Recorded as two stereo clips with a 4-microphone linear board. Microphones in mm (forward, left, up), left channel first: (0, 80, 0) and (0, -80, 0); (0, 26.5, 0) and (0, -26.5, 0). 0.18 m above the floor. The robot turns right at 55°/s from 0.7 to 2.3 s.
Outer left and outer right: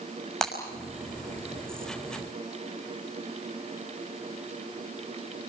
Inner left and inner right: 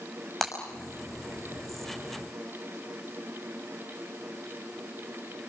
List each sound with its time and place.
0.4 s breaking glass: centre (ahead or behind), 6 m